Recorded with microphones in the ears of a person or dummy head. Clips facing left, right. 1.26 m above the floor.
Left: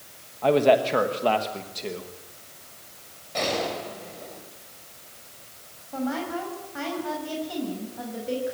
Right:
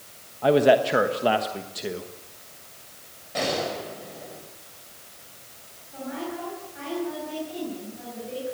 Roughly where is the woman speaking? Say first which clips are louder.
Left 4 dB; left.